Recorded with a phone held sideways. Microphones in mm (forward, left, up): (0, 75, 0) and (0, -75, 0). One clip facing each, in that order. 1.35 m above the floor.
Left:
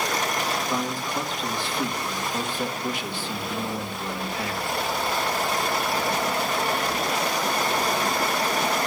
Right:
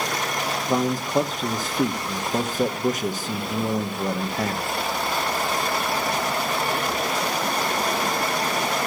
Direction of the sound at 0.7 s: 40° right (ahead or behind).